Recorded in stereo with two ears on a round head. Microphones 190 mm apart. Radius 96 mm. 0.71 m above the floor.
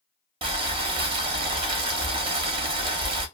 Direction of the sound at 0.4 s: 25° right (ahead or behind).